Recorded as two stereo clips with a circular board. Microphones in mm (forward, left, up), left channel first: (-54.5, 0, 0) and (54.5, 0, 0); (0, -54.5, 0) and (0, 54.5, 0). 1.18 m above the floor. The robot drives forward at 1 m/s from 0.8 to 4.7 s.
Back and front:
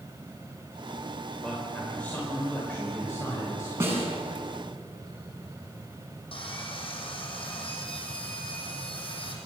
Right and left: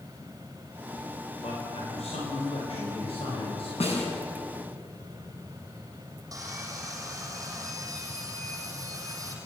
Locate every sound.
1.4 s a man speaking: 95° right, 5.5 m; by 3.7 s 120° right, 6.5 m
3.8 s a snare drum: 65° right, 6.5 m; by 4.1 s 70° right, 6.5 m
6.3 s sawing: 150° left, 6.5 m